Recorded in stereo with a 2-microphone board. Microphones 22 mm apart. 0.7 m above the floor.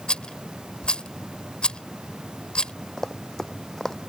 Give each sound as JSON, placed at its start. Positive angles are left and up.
{"t": 0.1, "sound": "a rattle", "side_deg": 45}
{"t": 3.0, "sound": "running footsteps", "side_deg": 25}